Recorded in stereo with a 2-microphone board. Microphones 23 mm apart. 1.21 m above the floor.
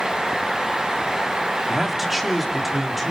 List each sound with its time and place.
1.7 s a man speaking: 20° right (ahead or behind), 2 m; by 3.1 s 5° right (ahead or behind), 3.5 m